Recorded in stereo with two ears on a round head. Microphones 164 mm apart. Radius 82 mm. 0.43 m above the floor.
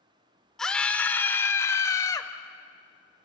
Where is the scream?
5° left (ahead or behind), 1.1 m; by 2.3 s 20° left (ahead or behind), 1.7 m.